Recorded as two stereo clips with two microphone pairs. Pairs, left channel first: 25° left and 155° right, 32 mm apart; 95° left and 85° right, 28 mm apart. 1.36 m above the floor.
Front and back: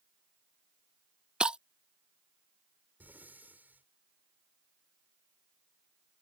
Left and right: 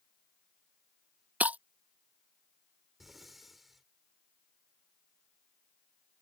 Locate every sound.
1.4 s breaking glass: 95° right
3.0 s breathing: 170° right